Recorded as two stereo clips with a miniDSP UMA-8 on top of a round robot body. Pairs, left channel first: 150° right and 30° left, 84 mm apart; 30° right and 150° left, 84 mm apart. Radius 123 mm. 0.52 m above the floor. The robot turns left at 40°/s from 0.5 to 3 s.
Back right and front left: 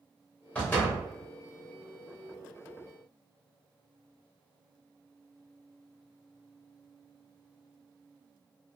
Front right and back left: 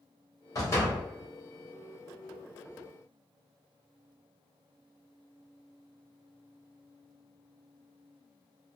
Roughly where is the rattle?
No rattle in this recording.